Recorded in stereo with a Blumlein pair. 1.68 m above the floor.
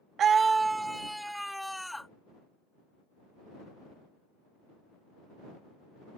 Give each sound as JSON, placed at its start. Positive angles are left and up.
{"t": 0.2, "sound": "a scream", "azimuth_deg": -30}